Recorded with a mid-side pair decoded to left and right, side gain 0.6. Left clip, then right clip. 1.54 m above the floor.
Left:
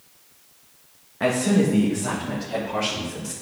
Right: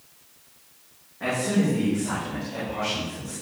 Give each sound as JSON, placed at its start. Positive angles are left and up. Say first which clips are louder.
{"t": 1.2, "sound": "a man speaking", "louder": "left 4 dB", "azimuth_deg": 55, "distance_m": 1.6}